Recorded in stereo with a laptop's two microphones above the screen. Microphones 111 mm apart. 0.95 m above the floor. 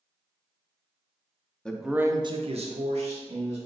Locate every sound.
1.6 s a man speaking: 10° left (ahead or behind), 0.6 m; by 3.6 s 75° right (ahead or behind), 1.2 m